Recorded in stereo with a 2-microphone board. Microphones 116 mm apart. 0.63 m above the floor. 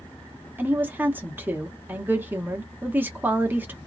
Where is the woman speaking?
15° right (ahead or behind), 0.9 m.